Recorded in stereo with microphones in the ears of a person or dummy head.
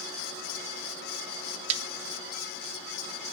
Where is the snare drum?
40° right (ahead or behind), 0.6 m.